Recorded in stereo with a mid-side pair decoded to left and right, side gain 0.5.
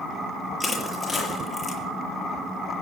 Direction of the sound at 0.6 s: 20° left.